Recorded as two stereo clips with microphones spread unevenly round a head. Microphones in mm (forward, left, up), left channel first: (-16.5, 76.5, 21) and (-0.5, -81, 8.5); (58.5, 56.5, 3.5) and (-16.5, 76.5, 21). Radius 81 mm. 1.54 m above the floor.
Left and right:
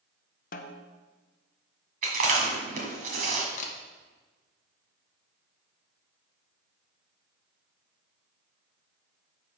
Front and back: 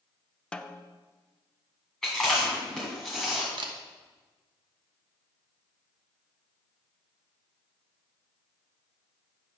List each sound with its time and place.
0.5 s a snare drum: 70° left, 0.6 m
2.0 s chewing: 110° right, 2 m
3.6 s a camera shutter: 140° left, 1.1 m